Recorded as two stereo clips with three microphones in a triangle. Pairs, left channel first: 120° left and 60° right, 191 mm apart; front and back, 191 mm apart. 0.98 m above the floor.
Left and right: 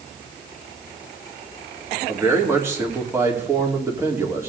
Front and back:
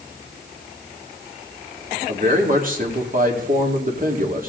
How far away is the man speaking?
About 2.5 m.